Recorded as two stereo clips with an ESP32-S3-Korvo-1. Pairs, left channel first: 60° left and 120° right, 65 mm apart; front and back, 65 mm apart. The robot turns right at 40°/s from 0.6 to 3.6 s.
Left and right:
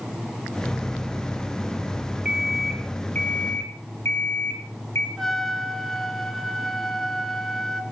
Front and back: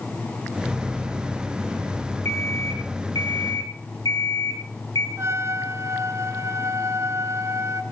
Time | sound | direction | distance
2.2 | an alarm clock | 45° right | 5 m
5.2 | a trumpet | 145° left | 1.7 m